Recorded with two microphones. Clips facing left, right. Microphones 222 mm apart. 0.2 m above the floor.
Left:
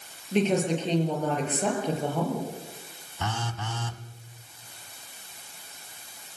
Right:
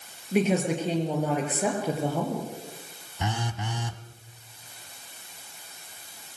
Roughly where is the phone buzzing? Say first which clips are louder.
Right 2 dB; centre.